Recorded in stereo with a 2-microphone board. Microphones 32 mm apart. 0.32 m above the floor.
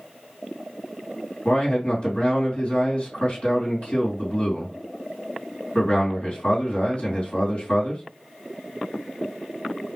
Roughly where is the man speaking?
Left.